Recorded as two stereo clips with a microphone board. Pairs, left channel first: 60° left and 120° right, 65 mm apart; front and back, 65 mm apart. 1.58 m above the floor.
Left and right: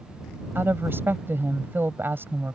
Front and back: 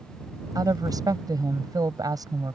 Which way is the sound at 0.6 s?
175° right.